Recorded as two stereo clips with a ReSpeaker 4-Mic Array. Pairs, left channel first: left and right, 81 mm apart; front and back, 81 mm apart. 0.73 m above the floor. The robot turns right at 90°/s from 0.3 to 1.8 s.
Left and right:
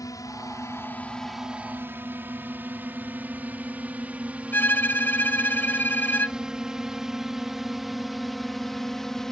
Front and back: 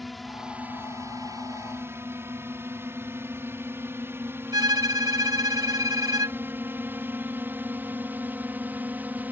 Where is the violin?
150° left.